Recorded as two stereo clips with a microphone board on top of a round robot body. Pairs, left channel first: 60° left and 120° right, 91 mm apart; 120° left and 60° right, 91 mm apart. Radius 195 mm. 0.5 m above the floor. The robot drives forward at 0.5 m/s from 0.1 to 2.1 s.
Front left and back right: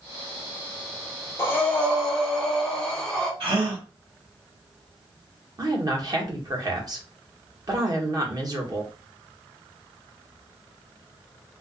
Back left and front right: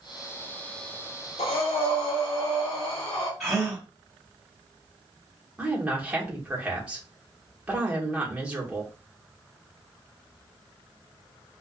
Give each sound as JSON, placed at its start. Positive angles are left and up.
{"t": 1.4, "sound": "breathing", "azimuth_deg": 125, "distance_m": 0.6}
{"t": 3.4, "sound": "a gasp", "azimuth_deg": -150, "distance_m": 1.5}
{"t": 5.6, "sound": "a woman speaking", "azimuth_deg": -135, "distance_m": 1.2}